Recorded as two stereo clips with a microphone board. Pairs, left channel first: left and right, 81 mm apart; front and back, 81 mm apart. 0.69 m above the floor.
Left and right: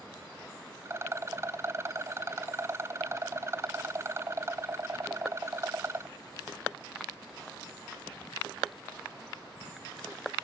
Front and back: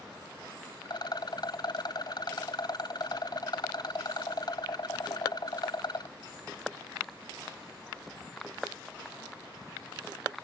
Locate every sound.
0.8 s a rattle: 35° right